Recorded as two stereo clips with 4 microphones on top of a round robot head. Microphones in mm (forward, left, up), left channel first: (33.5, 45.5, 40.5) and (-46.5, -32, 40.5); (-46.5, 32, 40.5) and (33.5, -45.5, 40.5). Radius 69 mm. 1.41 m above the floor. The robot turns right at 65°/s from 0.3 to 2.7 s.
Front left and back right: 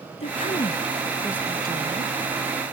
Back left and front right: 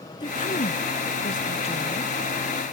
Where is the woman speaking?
80° left; by 2.1 s 160° right.